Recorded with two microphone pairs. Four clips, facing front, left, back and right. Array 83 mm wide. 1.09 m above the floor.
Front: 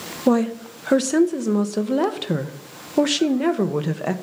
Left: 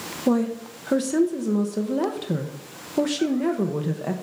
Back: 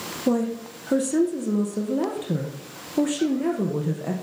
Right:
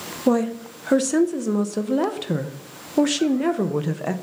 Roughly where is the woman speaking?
Ahead right.